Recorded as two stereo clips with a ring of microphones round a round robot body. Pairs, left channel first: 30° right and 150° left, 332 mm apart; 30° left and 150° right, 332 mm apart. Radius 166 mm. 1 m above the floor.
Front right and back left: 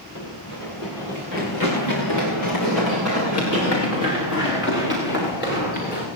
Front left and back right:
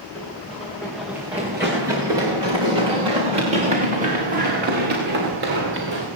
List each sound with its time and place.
0.1 s running footsteps: 60° right, 8 m; by 6.1 s 95° right, 7.5 m